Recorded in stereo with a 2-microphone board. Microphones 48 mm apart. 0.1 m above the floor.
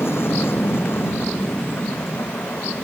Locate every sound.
0.0 s an aircraft: 60° left (ahead or behind); by 2.9 s 55° left (ahead or behind)